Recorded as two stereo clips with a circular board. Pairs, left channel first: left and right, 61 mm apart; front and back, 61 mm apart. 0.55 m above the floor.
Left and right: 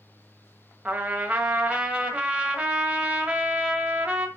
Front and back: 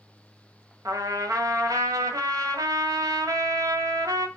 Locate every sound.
0.8 s a trumpet: 160° right, 1.5 m